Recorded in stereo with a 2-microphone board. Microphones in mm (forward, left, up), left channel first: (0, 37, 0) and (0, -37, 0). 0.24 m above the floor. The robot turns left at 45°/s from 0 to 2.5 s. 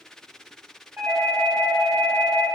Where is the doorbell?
110° right, 1.7 m; by 2.5 s straight behind, 1.7 m.